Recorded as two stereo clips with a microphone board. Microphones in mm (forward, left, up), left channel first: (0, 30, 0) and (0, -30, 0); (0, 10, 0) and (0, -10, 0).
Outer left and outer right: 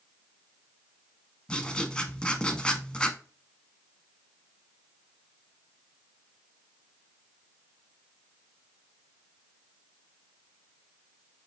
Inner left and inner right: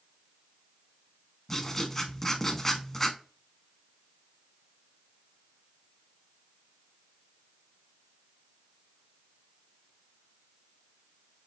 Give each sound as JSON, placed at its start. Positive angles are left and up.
{"t": 1.5, "sound": "writing", "side_deg": 15, "distance_m": 0.6}